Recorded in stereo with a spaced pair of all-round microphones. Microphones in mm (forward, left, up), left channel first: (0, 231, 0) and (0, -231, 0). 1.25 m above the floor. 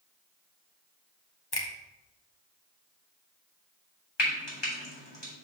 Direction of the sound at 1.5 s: 50° left (ahead or behind).